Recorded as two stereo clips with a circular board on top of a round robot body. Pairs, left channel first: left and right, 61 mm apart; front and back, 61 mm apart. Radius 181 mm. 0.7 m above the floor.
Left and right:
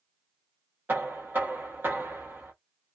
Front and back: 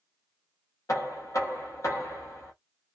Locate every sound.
0.9 s knocking: 35° right, 1.1 m